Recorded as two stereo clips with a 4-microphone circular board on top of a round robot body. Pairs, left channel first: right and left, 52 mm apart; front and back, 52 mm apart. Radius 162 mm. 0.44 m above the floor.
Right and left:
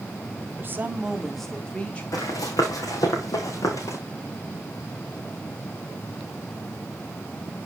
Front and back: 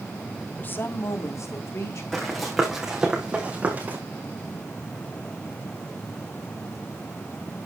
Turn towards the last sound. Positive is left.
turn(degrees=-120)